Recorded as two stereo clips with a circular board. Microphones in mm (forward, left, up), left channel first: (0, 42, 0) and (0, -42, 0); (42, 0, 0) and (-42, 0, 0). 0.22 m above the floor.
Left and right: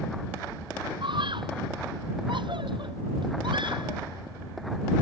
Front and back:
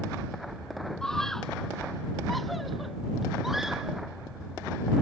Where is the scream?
85° right; by 4.0 s 95° right.